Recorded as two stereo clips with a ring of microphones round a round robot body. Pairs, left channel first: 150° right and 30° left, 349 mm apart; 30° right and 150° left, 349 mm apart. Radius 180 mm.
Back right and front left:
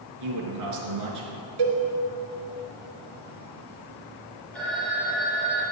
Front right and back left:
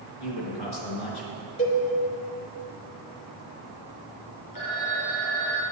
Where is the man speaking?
10° right, 4 m.